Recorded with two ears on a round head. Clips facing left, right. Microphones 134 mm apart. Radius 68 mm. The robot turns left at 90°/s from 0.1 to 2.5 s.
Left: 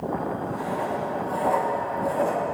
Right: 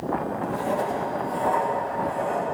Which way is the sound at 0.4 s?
95° right.